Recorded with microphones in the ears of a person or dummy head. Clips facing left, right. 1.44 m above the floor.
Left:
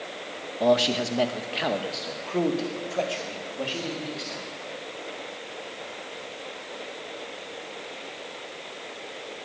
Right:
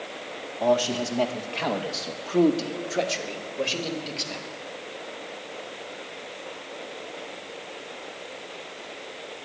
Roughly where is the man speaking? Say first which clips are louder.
Left 1 dB; left.